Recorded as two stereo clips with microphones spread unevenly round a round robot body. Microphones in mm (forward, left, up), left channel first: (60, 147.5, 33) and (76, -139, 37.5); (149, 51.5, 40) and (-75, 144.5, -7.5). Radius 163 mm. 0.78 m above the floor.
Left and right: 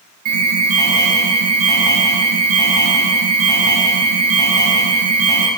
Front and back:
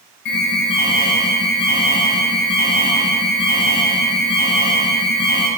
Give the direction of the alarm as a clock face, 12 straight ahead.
2 o'clock.